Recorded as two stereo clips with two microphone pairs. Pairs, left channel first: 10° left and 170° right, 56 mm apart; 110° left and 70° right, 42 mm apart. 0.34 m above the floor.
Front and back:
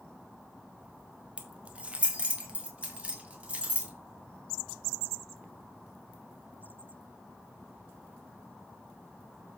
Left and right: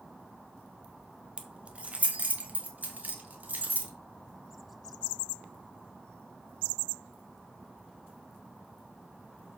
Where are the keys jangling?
115° right, 1.2 m; by 3.9 s 105° right, 2.5 m.